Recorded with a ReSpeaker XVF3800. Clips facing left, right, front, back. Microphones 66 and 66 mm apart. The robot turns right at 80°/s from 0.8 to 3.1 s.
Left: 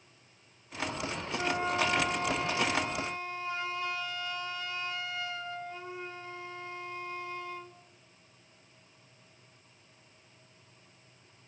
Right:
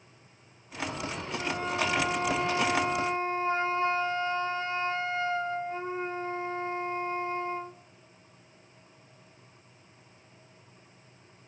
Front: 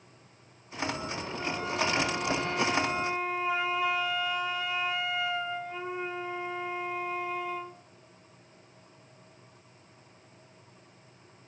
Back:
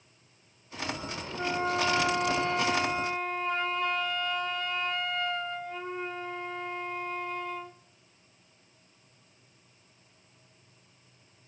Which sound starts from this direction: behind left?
A flute, at 1.4 s.